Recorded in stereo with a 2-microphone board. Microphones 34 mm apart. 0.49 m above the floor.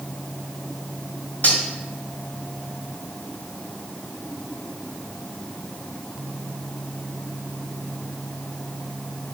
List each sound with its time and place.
1.4 s cutlery clinking: 55° left (ahead or behind), 1.4 m